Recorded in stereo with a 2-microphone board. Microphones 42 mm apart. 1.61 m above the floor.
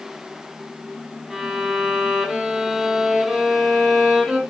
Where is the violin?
10° right (ahead or behind), 0.5 m.